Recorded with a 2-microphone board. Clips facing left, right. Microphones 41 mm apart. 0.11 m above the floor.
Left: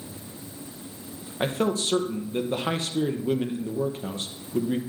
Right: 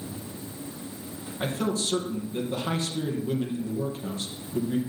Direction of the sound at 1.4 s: 40° left (ahead or behind).